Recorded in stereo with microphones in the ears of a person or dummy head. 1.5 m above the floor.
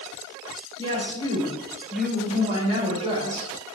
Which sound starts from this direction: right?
A woman speaking, at 0.8 s.